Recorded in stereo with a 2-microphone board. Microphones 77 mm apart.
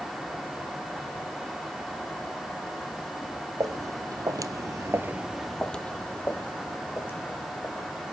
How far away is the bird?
I don't hear a bird.